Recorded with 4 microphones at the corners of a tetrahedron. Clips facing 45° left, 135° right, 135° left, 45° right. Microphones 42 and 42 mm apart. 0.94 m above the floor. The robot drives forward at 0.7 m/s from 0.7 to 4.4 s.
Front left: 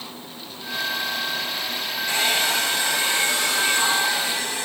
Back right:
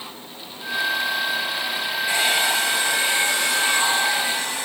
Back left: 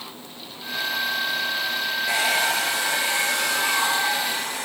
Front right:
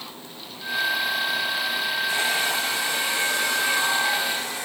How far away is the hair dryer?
About 4.5 m.